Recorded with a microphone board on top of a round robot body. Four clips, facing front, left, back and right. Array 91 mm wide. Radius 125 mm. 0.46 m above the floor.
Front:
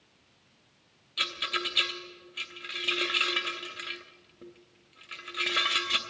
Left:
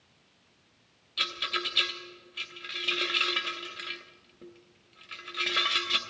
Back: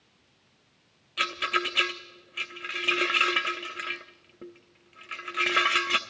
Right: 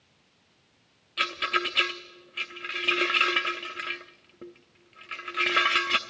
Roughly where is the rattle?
Behind right.